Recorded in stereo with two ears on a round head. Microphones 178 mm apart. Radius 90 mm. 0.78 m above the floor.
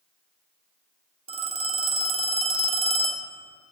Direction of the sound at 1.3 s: 30° right (ahead or behind).